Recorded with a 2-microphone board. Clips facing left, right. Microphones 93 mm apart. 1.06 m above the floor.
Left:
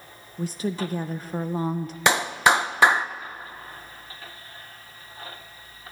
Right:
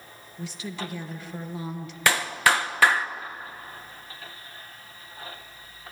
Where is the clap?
20° left (ahead or behind), 0.6 m.